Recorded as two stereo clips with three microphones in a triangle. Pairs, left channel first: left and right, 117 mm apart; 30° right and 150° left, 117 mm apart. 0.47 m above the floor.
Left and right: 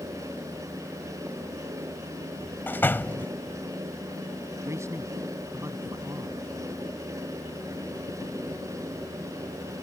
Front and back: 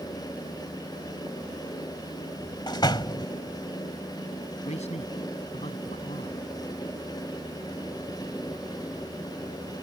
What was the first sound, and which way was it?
A door slam, 20° left.